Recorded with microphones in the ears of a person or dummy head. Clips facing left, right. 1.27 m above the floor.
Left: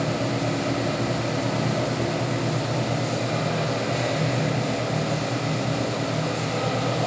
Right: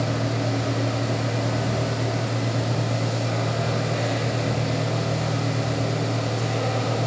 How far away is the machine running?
About 0.7 m.